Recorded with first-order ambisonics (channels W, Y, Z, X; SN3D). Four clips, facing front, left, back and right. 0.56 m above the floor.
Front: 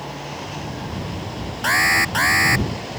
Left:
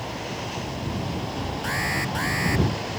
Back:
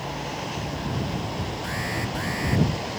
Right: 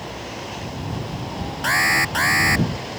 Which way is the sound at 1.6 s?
35° right.